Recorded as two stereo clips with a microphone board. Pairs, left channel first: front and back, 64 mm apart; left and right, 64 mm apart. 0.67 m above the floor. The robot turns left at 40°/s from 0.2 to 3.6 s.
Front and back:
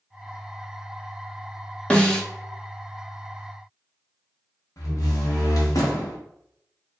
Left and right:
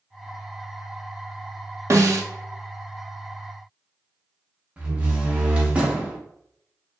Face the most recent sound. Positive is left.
turn(degrees=-20)